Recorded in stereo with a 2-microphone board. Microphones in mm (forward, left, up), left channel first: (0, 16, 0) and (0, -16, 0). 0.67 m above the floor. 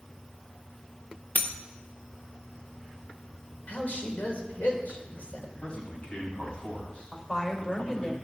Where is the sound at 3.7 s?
65° left (ahead or behind), 2.5 m.